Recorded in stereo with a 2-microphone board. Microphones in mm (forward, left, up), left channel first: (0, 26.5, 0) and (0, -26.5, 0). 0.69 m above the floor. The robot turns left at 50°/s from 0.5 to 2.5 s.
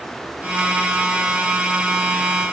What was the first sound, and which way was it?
Only background noise.